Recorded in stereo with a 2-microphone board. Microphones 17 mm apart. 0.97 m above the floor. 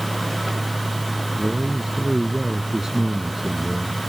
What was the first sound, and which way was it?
A man speaking, 20° right (ahead or behind).